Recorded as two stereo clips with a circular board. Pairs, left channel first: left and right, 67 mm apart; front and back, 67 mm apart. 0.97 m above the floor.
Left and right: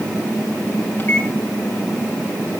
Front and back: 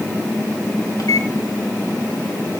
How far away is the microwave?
About 1.9 m.